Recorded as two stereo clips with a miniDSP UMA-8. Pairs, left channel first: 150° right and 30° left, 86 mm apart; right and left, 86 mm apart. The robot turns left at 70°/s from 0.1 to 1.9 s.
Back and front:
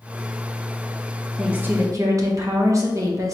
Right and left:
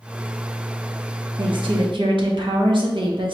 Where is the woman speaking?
115° left, 1.0 m; by 3.4 s 80° left, 1.0 m.